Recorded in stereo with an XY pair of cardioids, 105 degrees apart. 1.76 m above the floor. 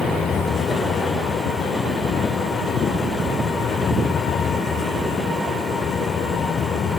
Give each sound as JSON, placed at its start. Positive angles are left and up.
{"t": 0.0, "sound": "a fan", "azimuth_deg": 45}